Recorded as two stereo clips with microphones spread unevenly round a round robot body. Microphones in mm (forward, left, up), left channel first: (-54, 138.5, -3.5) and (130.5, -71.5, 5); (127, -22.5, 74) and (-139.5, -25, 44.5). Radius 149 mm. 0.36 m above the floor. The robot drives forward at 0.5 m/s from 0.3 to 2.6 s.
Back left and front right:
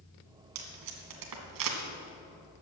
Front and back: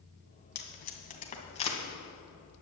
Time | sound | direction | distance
0.6 | tape being pulled | 55° right | 2.5 m